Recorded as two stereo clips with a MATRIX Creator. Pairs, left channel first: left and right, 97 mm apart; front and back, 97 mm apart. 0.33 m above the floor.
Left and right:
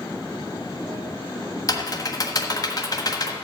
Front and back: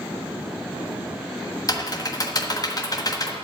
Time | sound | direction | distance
1.7 | typing on a keyboard | 45° left | 1.3 m